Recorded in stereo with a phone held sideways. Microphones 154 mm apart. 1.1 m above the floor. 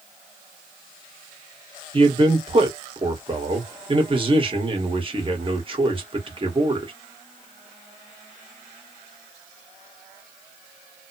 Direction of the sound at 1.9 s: 35° right (ahead or behind).